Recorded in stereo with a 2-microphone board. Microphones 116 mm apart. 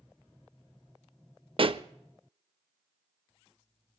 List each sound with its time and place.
1.6 s a pop: 50° right (ahead or behind), 0.6 m